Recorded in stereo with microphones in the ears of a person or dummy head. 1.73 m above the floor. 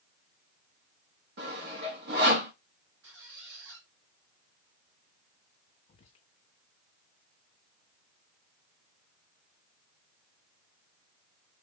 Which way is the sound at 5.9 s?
35° left (ahead or behind).